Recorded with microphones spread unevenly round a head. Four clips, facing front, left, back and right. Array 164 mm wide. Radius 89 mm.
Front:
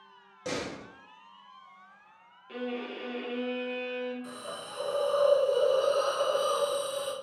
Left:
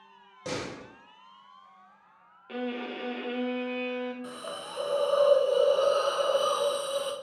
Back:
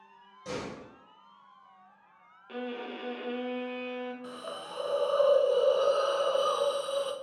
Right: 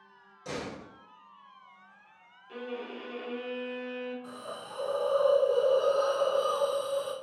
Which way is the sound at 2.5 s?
95° left.